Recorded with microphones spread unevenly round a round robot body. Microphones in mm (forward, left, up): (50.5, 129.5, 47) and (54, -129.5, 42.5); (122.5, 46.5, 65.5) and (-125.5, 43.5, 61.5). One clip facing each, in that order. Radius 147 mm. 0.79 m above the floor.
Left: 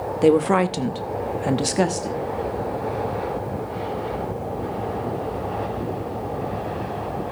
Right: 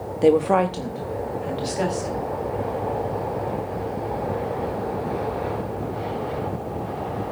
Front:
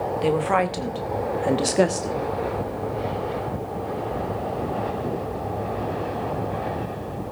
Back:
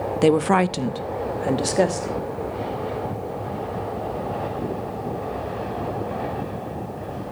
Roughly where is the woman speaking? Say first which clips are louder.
Left 1 dB, back 5 dB; behind.